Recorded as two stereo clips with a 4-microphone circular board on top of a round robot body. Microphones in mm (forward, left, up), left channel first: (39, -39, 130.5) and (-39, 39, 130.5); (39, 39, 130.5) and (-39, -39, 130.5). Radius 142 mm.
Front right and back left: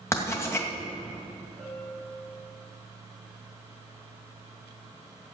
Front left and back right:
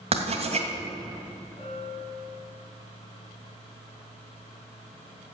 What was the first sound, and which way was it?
Writing, 110° right.